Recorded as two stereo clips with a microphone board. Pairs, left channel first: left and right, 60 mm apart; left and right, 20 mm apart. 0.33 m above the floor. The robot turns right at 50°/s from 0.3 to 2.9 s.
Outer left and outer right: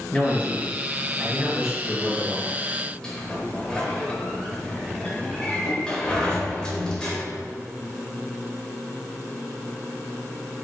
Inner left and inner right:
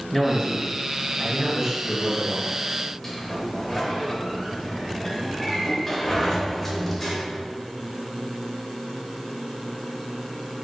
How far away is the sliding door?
About 0.8 m.